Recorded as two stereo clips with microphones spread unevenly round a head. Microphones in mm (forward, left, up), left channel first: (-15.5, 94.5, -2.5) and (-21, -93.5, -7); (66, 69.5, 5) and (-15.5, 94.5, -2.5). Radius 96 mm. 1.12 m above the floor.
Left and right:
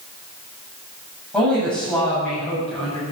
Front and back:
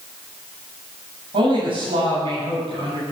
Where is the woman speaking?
175° left, 8 m.